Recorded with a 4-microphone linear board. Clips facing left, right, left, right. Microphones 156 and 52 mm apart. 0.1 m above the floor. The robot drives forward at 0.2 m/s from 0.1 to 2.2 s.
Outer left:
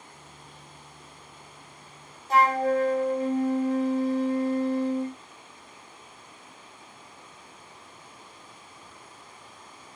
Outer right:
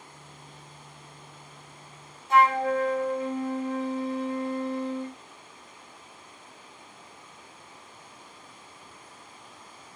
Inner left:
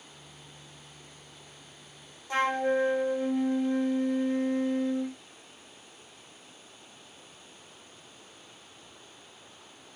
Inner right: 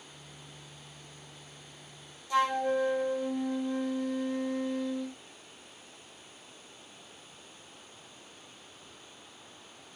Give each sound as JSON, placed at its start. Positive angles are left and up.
{"t": 2.3, "sound": "a flute", "side_deg": 40, "distance_m": 0.6}